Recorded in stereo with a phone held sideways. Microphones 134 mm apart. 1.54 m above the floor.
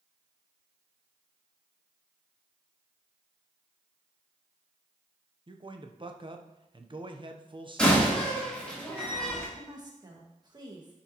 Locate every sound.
5.5 s a man speaking: 40° right (ahead or behind), 0.8 m
7.8 s a door slam: 5° left (ahead or behind), 3.5 m
9.6 s a woman speaking: 30° right (ahead or behind), 1.8 m